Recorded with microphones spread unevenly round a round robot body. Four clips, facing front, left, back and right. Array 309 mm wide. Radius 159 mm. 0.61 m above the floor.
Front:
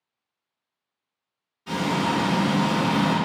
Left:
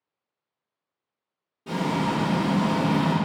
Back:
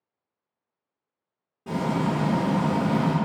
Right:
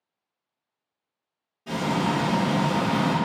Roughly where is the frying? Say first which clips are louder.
Even, front 1 dB; behind left.